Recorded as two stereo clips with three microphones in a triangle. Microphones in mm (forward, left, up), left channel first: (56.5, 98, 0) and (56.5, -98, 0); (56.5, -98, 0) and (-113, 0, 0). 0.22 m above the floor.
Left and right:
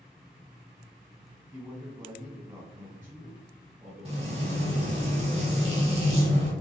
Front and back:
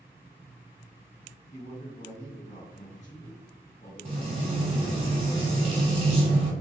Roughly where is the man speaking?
Ahead.